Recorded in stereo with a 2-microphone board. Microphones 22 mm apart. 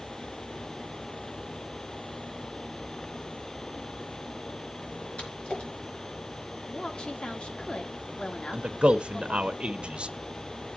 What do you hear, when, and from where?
5.2 s a splash: 80° left, 4 m
6.7 s a woman speaking: 55° left (ahead or behind), 1.4 m
8.5 s a man speaking: 55° right (ahead or behind), 0.7 m